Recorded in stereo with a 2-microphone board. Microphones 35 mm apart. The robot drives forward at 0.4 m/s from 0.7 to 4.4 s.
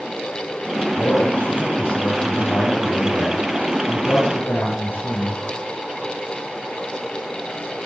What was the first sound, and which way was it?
A man speaking, 80° left.